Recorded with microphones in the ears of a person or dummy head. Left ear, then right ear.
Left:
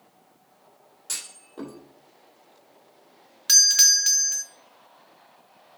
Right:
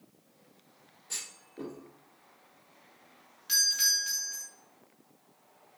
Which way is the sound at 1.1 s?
55° left (ahead or behind).